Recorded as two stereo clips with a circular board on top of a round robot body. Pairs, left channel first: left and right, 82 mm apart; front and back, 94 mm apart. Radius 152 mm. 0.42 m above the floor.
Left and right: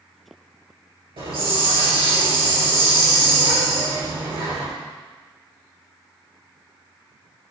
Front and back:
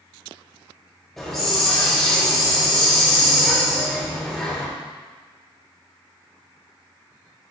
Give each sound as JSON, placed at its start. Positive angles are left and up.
{"t": 1.2, "sound": "a hiss", "azimuth_deg": -85, "distance_m": 3.5}